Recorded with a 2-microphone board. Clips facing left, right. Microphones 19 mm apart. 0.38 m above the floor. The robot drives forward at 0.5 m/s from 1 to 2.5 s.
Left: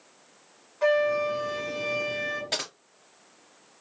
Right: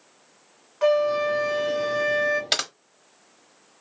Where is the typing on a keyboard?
70° right (ahead or behind), 0.8 m.